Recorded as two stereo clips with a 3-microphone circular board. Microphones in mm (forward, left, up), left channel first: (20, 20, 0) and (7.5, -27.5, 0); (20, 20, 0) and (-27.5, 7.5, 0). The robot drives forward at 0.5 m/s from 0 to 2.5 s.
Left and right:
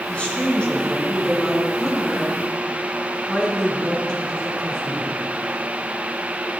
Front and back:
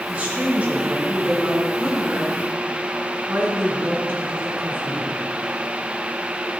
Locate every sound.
0.1 s a woman speaking: 135° left, 2.5 m; by 5.2 s 150° left, 3.5 m